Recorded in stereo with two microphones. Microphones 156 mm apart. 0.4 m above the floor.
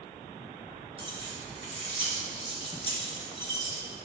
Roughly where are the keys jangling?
Right.